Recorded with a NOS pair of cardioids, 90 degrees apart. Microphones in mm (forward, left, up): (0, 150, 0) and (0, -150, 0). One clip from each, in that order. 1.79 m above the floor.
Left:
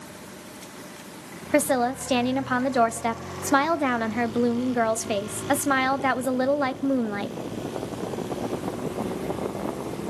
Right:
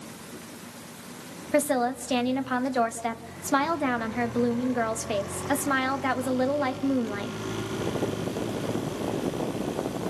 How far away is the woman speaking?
About 1.1 m.